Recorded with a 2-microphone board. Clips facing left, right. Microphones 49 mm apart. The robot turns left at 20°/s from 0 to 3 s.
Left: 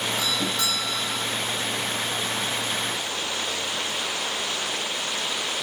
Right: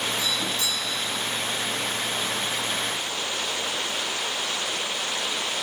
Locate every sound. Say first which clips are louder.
0.2 s a doorbell: left 1 dB; 75° left (ahead or behind), 4.5 m; by 1.3 s 70° left (ahead or behind), 4.5 m